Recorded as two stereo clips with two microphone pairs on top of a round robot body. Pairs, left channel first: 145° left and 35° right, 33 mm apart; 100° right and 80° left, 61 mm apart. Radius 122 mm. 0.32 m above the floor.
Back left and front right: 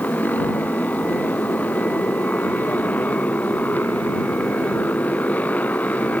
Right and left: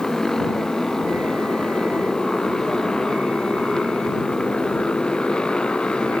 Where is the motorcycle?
175° left; by 6.2 s 175° right.